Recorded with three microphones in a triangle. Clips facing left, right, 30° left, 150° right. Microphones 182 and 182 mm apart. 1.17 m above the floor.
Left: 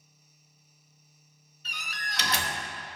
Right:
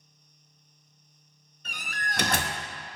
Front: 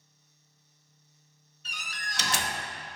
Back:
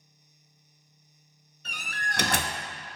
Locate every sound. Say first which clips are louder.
1.6 s a door slam: right 5 dB, back 6 dB; 125° right, 0.8 m